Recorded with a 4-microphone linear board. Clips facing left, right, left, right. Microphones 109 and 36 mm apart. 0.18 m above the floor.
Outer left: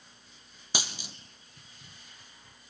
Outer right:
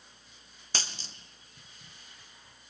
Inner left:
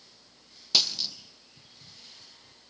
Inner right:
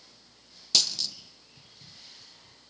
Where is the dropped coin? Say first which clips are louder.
Outer left 3 dB, inner left 1 dB; 15° left (ahead or behind), 1.2 m.